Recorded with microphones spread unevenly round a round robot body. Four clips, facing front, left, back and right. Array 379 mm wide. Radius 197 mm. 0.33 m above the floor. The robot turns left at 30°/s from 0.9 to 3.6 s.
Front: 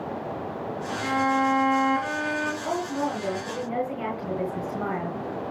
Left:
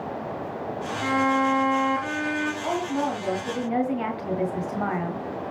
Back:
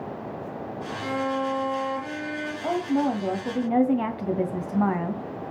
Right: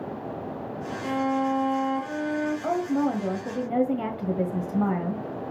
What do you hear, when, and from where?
1.0 s a violin: 85° left, 5 m; by 2.5 s 40° left, 5 m
2.6 s a woman speaking: 135° right, 1.8 m; by 5.2 s 165° right, 1.8 m